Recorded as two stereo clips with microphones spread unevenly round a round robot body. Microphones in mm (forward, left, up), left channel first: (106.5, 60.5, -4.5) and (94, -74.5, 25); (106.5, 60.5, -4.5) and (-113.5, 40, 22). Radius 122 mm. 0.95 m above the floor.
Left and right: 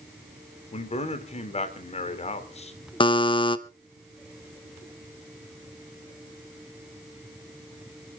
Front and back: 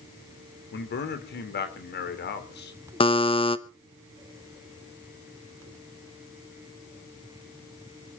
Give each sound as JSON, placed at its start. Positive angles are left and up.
{"t": 0.7, "sound": "a man speaking", "azimuth_deg": 45, "distance_m": 2.5}
{"t": 3.0, "sound": "a buzzer", "azimuth_deg": 60, "distance_m": 0.9}